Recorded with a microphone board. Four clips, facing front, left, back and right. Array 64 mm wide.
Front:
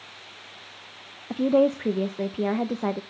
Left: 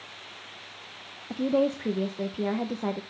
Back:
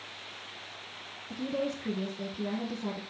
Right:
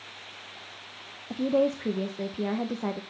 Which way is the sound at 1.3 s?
5° left.